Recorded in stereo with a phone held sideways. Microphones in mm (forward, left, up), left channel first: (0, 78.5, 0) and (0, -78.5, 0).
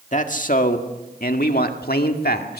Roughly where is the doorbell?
No doorbell in this recording.